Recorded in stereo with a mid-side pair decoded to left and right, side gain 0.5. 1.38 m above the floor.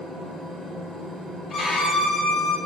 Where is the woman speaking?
I don't hear a woman speaking.